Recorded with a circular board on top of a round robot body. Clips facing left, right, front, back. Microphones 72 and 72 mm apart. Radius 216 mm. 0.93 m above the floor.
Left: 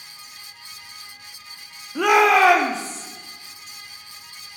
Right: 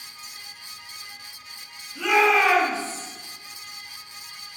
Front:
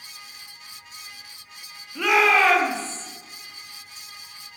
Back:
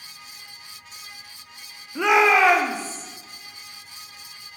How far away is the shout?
About 2 m.